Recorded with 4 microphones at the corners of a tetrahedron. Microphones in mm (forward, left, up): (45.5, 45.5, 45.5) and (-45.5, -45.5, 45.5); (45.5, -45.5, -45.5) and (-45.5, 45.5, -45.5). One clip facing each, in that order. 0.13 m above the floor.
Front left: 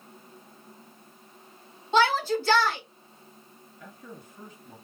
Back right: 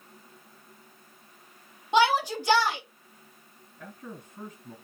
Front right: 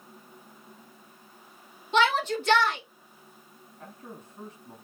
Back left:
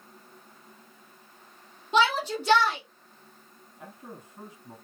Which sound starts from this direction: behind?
A shout, at 1.9 s.